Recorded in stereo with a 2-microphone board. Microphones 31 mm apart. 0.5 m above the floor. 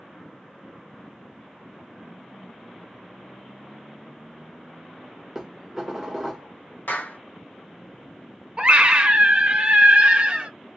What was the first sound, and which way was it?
Dishes clattering, 15° right (ahead or behind).